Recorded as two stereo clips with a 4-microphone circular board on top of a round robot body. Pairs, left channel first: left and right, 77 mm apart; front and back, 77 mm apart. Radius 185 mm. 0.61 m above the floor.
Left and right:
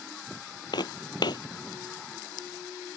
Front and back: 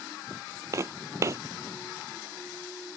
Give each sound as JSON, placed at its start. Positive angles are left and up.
{"t": 0.7, "sound": "footsteps", "azimuth_deg": 125}